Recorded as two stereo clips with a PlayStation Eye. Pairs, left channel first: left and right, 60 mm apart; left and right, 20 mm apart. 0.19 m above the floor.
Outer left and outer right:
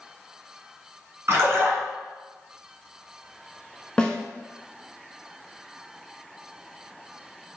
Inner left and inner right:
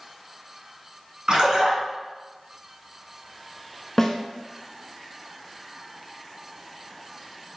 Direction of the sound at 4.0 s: 15° left (ahead or behind).